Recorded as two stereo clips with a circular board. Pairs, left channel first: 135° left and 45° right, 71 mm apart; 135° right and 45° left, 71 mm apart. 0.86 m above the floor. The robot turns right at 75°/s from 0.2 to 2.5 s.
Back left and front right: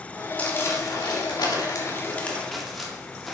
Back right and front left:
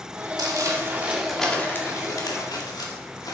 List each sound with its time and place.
0.4 s crumpling: 65° left, 1.8 m; by 3.4 s 135° right, 1.8 m